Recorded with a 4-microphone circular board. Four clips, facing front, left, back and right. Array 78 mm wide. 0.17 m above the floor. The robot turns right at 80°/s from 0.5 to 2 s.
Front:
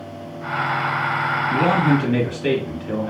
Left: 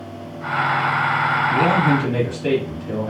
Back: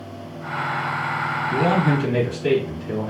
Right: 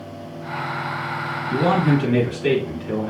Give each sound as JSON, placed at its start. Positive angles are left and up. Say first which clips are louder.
{"t": 1.5, "sound": "a man speaking", "louder": "right 2 dB, front 2 dB", "azimuth_deg": -70, "distance_m": 1.9}